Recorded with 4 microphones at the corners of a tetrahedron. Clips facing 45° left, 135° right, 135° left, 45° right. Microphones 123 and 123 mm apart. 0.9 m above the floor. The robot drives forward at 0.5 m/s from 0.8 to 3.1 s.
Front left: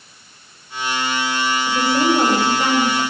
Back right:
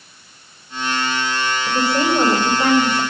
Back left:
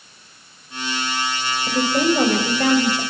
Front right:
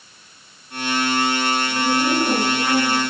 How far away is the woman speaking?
About 5 m.